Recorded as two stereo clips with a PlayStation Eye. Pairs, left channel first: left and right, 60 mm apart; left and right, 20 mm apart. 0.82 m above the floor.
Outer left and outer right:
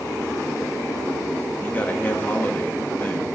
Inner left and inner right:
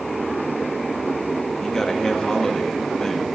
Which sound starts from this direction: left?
A man speaking, at 1.6 s.